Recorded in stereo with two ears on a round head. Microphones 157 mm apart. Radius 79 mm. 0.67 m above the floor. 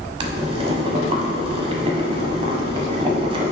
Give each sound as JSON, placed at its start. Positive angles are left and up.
{"t": 0.2, "sound": "boiling", "side_deg": -35, "distance_m": 1.0}